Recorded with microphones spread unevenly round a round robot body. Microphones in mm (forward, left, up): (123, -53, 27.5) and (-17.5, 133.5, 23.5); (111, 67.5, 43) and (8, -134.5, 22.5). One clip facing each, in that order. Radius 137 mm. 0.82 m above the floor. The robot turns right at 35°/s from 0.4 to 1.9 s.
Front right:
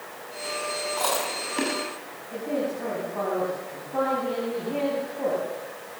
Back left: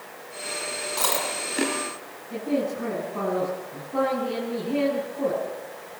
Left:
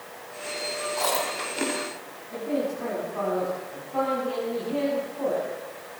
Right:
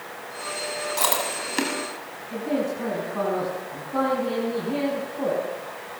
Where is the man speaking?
165° right, 6.5 m.